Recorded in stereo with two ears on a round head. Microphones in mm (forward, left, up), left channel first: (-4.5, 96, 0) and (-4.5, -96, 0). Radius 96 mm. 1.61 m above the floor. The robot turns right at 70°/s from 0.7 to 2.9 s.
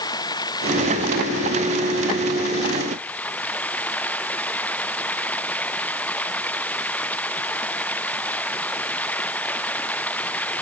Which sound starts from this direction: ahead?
Running water, at 0.0 s.